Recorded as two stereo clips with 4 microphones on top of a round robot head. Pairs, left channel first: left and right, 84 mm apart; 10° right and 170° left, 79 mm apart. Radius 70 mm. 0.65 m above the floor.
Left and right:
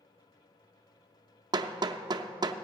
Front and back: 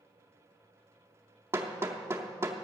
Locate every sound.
1.5 s hammering: 125° right, 0.6 m